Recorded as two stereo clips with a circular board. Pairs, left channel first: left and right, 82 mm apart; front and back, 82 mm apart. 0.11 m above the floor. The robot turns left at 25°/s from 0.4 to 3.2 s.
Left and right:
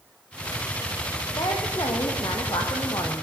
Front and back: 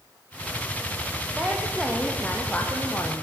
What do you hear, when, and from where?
1.4 s a woman speaking: 105° left, 4 m; by 3.2 s 60° left, 4 m